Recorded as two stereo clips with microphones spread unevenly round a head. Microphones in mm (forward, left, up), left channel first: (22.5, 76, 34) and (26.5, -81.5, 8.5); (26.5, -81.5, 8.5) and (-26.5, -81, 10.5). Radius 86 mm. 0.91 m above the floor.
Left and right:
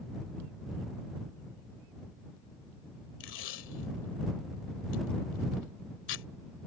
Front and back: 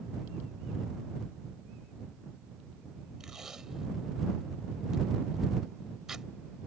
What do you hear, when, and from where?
3.2 s tape being pulled: 95° left